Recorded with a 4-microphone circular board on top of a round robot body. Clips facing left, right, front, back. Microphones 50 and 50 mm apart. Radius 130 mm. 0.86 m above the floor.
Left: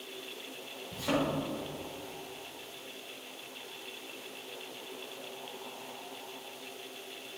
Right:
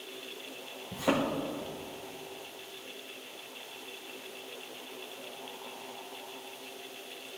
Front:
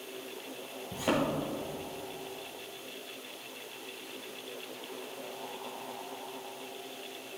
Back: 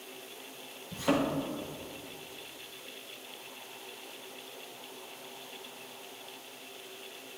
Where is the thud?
65° right, 1.8 m.